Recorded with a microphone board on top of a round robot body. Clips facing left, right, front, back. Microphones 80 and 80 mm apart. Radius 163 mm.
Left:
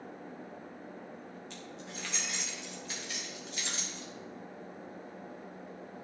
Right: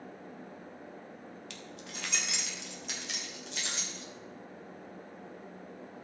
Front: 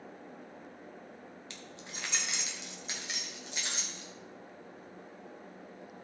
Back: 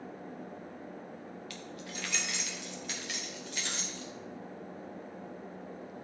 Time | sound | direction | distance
1.5 | keys jangling | 65° right | 1.1 m